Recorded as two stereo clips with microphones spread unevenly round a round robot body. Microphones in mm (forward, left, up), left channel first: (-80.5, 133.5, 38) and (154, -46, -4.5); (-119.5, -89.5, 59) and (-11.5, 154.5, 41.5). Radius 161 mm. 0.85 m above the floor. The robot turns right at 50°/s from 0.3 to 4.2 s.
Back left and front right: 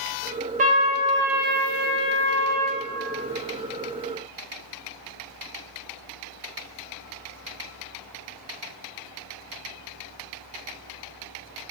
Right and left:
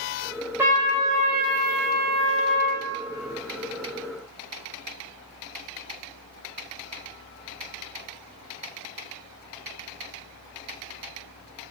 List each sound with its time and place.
0.6 s a trumpet: 5° right, 0.6 m; by 2.8 s 105° left, 0.6 m